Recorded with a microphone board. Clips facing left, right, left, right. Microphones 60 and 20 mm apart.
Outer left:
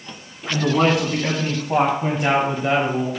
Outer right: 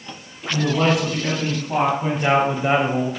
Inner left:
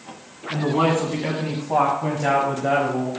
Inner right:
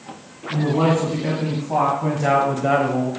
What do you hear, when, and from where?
0.5 s a man speaking: 40° left (ahead or behind), 3 m; by 3.1 s 35° right (ahead or behind), 1.5 m